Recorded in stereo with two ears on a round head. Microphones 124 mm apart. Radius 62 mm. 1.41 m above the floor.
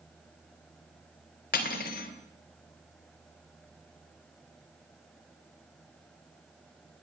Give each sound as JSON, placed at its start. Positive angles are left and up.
{"t": 1.5, "sound": "cutlery clinking", "side_deg": 70, "distance_m": 3.0}